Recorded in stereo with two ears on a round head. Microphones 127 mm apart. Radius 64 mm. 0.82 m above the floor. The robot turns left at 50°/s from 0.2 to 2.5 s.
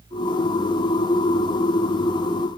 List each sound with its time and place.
Only background noise.